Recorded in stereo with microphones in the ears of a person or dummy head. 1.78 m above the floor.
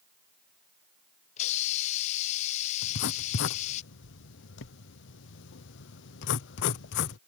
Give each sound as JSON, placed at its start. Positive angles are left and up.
{"t": 1.4, "sound": "a hiss", "side_deg": 40}
{"t": 2.8, "sound": "writing", "side_deg": 75}